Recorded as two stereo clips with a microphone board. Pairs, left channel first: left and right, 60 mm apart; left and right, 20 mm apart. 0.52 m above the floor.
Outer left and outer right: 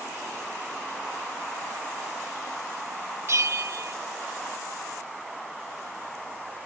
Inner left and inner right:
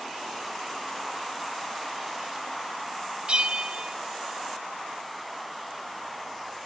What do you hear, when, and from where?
3.3 s a bell: 50° right (ahead or behind), 1.7 m